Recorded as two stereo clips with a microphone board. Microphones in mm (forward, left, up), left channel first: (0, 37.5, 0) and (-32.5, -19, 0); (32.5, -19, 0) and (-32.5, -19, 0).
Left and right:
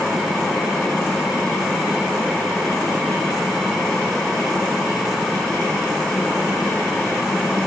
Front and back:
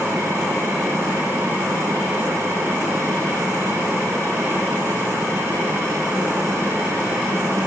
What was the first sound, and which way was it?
Only background noise.